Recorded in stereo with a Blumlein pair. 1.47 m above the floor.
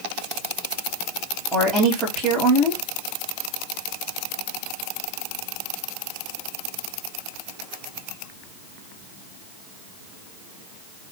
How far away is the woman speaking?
About 2.5 m.